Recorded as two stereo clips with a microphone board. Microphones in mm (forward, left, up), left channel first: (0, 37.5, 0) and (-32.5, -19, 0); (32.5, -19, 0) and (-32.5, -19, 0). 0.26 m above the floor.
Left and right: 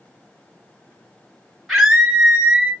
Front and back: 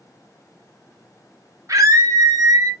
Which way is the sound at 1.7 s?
145° left.